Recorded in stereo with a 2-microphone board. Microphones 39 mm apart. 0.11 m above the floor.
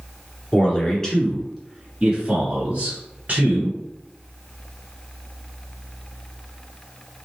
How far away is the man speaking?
About 1.4 m.